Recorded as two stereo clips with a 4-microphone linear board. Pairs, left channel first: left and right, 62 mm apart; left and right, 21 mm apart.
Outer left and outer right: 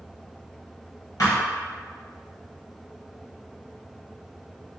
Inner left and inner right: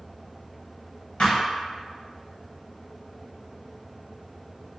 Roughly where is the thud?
Left.